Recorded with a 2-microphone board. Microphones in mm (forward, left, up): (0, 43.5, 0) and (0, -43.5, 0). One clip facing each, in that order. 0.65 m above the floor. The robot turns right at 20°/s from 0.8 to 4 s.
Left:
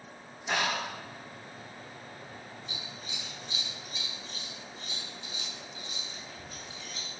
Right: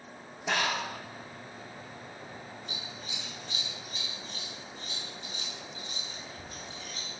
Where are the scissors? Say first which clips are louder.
Right 1 dB; 60° right (ahead or behind), 1.9 m; by 7.1 s 55° right (ahead or behind), 1.9 m.